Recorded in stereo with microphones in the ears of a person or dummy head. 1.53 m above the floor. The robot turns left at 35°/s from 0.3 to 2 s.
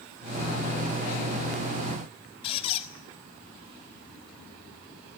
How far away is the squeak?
About 1.5 m.